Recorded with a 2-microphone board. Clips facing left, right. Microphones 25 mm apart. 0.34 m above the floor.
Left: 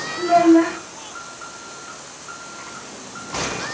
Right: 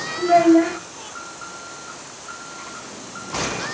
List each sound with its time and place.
0.2 s a child speaking: 65° left (ahead or behind), 1.9 m